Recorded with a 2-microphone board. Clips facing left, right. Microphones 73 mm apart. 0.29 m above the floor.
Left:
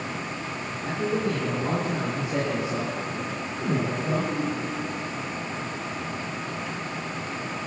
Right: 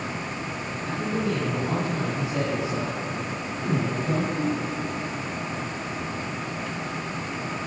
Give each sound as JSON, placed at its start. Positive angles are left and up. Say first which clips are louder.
{"t": 0.8, "sound": "a man speaking", "louder": "left 1 dB", "side_deg": 65, "distance_m": 9.5}